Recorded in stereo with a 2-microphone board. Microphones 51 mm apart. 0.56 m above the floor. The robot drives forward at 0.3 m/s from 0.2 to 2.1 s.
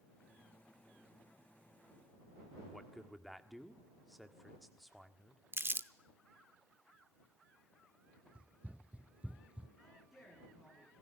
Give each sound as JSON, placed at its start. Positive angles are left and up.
{"t": 2.6, "sound": "a man speaking", "side_deg": 0, "distance_m": 1.6}
{"t": 5.5, "sound": "crumpling", "side_deg": -50, "distance_m": 0.8}
{"t": 8.3, "sound": "running footsteps", "side_deg": -25, "distance_m": 1.0}
{"t": 9.8, "sound": "a man speaking", "side_deg": 0, "distance_m": 7.5}